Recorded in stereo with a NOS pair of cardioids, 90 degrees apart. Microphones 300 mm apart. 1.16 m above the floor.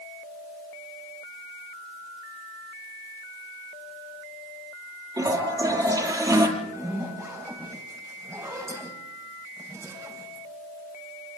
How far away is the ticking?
I don't hear ticking.